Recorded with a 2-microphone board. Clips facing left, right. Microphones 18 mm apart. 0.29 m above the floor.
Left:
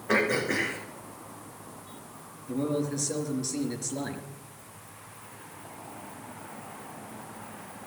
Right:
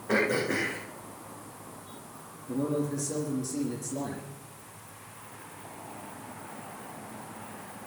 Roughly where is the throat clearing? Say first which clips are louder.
Left 1 dB; left.